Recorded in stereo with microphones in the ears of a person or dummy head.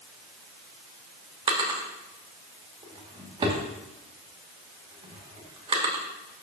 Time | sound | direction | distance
1.5 | a drawer | 30° right (ahead or behind) | 0.9 m